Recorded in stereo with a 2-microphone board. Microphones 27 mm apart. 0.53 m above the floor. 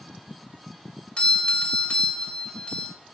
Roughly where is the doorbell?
Left.